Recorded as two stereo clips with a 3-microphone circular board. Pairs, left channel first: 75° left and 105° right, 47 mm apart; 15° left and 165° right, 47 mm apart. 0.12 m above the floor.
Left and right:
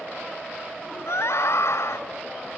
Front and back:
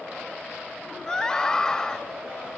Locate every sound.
1.1 s a scream: 90° left